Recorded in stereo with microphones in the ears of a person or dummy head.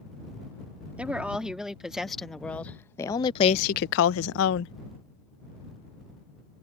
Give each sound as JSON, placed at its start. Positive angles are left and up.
{"t": 1.0, "sound": "a woman speaking", "side_deg": -5}